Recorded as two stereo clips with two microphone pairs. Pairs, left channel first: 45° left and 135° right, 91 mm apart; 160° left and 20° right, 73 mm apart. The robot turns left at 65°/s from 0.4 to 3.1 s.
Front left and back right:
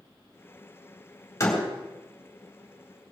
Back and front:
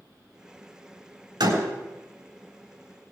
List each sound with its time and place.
1.4 s a door slam: 10° right, 4 m; by 1.6 s 25° right, 4 m